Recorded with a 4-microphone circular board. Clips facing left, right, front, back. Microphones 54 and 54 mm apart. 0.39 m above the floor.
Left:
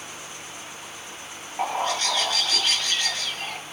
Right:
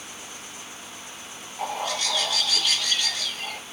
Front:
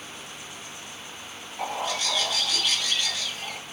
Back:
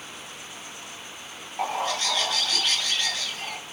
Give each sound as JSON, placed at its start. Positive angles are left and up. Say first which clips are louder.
{"t": 1.6, "sound": "a bird", "louder": "left 3 dB, back 2 dB", "azimuth_deg": 135, "distance_m": 2.0}